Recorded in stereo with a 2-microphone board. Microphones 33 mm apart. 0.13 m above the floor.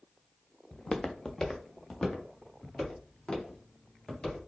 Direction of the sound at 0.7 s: 10° left (ahead or behind).